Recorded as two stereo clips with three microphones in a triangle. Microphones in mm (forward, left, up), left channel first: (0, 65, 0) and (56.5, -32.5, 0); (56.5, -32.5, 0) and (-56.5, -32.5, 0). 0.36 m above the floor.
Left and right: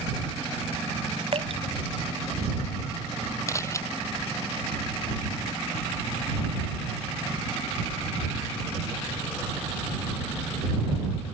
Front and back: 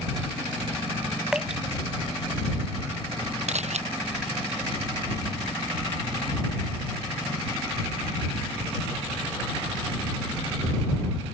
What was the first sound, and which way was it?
Dripping, 95° right.